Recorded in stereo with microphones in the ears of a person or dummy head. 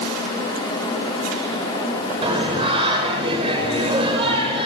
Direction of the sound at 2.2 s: 35° right (ahead or behind).